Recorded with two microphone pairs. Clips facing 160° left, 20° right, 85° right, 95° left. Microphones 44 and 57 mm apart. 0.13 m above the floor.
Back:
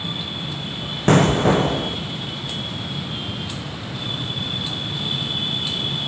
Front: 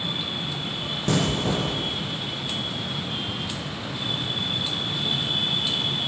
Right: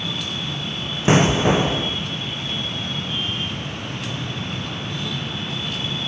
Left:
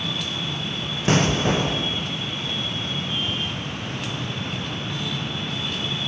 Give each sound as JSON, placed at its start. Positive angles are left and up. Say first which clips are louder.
{"t": 1.1, "sound": "an explosion", "louder": "back 9 dB, right 4 dB", "azimuth_deg": -160, "distance_m": 1.5}